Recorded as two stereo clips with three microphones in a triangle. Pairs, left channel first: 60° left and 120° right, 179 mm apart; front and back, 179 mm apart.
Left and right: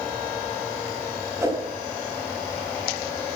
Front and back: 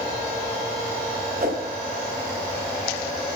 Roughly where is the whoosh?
Behind.